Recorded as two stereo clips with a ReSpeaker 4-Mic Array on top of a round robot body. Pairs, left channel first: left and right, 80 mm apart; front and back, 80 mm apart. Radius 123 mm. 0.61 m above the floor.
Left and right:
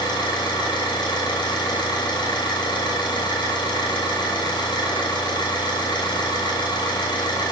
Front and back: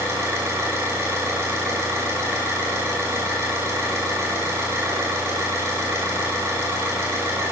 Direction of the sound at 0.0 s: 120° left.